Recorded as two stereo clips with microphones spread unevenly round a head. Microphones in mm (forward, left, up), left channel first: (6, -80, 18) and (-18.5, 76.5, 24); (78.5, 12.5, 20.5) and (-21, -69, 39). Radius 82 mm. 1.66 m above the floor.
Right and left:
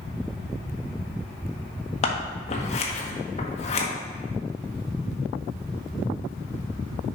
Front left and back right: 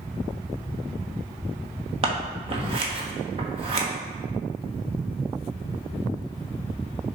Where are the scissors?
125° right, 1.1 m.